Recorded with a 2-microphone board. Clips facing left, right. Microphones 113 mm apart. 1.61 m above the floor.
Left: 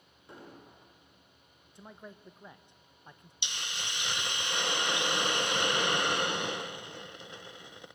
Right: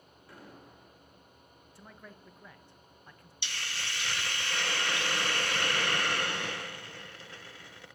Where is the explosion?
25° left (ahead or behind), 6 m.